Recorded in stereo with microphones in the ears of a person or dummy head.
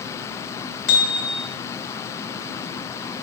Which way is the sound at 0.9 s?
75° left (ahead or behind).